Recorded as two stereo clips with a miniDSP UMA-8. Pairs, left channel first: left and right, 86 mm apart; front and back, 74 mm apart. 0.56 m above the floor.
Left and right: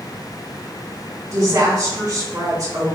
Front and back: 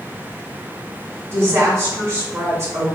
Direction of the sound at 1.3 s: 135° right.